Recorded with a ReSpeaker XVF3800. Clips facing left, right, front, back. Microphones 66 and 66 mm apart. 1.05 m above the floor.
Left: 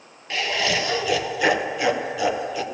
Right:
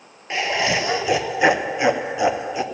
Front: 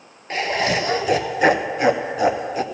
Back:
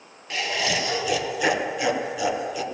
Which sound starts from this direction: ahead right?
Laughter, at 0.3 s.